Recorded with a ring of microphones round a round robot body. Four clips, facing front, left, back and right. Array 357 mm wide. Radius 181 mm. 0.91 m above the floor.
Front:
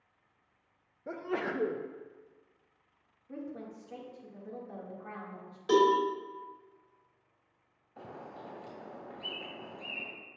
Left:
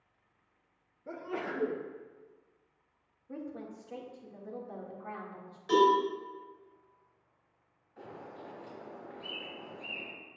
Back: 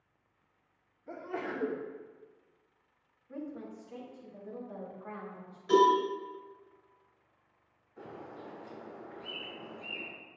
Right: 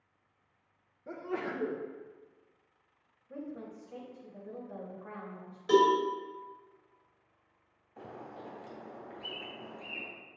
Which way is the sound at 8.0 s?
25° right.